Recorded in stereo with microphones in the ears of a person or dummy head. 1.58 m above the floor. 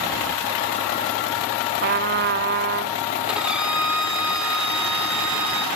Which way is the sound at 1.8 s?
50° right (ahead or behind).